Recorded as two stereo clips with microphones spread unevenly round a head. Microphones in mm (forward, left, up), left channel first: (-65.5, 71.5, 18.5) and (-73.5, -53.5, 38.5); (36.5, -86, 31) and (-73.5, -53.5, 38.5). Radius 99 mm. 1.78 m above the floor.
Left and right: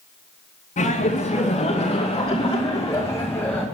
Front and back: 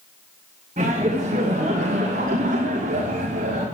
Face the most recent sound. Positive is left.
turn(degrees=165)